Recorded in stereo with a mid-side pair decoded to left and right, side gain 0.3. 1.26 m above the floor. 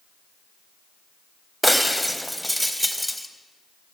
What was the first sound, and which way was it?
Breaking glass, straight ahead.